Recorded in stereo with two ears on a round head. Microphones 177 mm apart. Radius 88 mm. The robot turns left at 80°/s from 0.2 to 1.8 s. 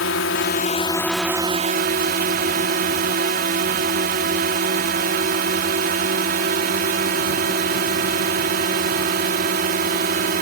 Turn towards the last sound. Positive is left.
turn(degrees=-50)